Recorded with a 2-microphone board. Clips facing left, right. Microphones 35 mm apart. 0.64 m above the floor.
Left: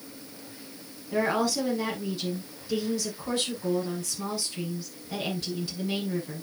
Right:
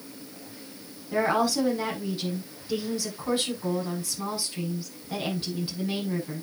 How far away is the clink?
I don't hear a clink.